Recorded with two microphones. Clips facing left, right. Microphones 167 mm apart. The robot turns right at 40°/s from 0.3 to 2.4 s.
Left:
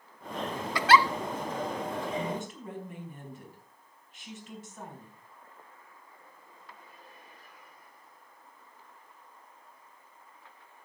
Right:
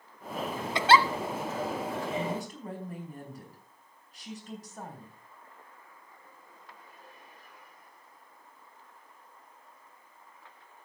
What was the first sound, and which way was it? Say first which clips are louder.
A giggle: even; 20° right (ahead or behind).